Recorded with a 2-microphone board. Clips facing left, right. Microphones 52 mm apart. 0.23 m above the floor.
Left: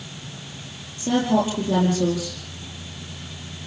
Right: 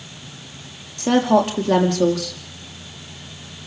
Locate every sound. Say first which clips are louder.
1.0 s a woman speaking: right 4 dB; 70° right (ahead or behind), 5.5 m